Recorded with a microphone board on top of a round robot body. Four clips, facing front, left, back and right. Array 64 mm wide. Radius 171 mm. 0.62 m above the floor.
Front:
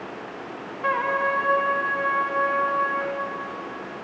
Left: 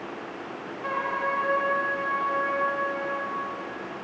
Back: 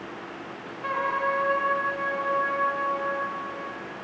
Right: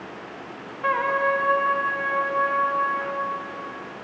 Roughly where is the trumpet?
Ahead right.